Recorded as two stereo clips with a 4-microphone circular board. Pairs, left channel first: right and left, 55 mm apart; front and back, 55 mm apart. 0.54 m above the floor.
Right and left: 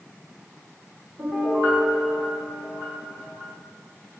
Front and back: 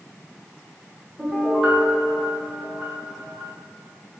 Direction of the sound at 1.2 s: 95° left.